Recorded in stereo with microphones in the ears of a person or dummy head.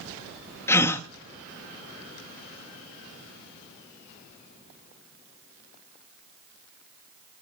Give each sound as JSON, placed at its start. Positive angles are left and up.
{"t": 0.7, "sound": "a gasp", "side_deg": 15, "distance_m": 1.1}